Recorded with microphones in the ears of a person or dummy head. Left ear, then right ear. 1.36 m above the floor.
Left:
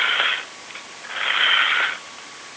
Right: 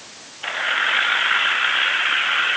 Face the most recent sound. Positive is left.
No sound to turn to.